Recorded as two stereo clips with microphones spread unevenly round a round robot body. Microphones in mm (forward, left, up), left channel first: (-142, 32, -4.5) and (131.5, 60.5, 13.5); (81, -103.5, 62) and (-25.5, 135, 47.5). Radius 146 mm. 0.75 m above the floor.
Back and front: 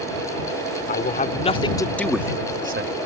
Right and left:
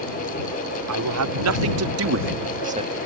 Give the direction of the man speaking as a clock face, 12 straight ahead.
8 o'clock.